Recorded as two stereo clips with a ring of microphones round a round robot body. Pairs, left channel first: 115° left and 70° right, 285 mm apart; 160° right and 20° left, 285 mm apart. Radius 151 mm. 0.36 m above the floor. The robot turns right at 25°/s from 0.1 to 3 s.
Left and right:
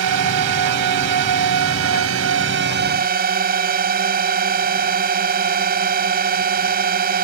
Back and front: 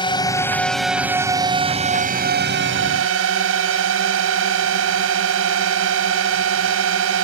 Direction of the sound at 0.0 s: 85° right.